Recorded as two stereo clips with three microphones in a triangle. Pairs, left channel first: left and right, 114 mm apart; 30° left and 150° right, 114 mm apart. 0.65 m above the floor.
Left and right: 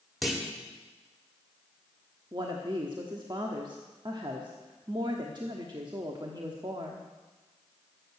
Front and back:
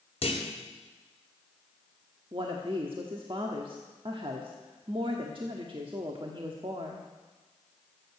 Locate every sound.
0.2 s a clunk: straight ahead, 2 m
2.3 s a woman speaking: 130° right, 1.2 m